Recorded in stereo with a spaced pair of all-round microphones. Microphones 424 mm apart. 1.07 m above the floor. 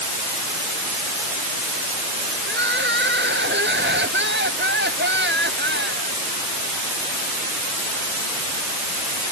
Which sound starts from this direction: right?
Crying, at 2.5 s.